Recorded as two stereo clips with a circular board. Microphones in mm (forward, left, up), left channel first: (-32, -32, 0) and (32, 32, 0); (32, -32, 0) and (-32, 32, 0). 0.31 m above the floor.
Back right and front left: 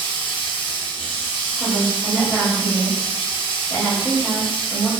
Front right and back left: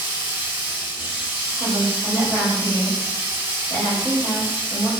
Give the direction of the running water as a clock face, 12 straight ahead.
5 o'clock.